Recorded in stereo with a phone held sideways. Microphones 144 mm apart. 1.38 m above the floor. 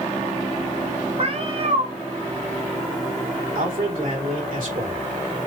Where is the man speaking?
75° right (ahead or behind), 3.5 m.